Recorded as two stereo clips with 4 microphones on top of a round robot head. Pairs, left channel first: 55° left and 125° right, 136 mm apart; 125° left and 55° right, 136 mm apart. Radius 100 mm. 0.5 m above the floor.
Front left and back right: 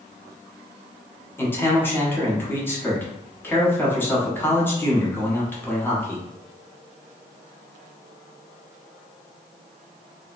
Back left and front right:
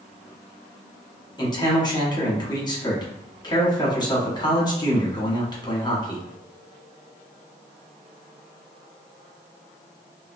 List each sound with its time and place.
1.4 s a man speaking: 115° left, 1.1 m